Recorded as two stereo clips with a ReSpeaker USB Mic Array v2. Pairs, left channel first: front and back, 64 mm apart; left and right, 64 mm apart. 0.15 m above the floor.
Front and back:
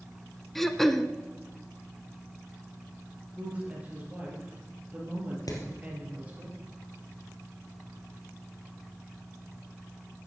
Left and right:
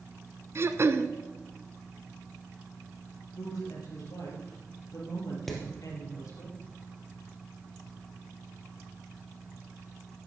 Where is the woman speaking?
110° left, 4.5 m.